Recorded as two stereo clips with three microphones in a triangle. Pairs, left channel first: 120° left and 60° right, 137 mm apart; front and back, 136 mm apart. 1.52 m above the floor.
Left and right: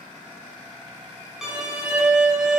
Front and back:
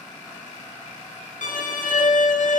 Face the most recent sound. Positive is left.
turn(degrees=25)